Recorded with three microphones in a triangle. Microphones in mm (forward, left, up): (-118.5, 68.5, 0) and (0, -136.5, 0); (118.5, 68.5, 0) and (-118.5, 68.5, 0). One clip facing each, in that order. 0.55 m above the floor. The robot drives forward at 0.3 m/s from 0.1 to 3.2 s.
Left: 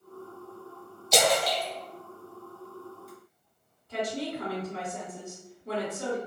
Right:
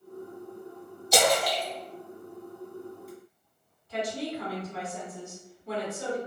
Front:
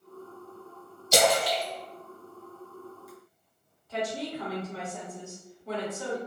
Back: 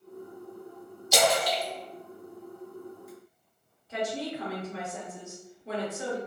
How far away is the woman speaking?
About 2.0 m.